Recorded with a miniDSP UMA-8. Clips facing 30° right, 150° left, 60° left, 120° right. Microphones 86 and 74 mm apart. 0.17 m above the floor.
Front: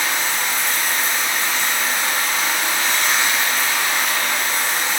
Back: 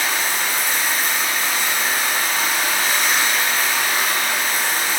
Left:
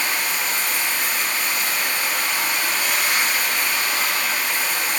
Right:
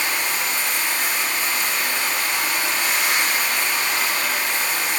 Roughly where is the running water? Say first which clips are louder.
Even, even; behind right.